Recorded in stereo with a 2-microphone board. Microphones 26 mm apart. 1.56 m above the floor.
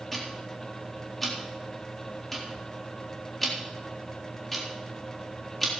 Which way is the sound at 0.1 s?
10° left (ahead or behind).